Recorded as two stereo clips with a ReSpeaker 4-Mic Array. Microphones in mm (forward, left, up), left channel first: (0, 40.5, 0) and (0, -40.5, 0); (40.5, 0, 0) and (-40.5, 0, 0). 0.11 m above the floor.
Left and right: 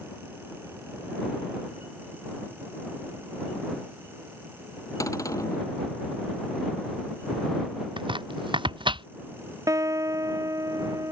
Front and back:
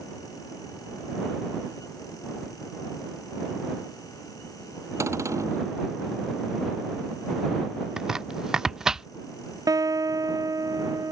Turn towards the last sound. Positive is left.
turn(degrees=-140)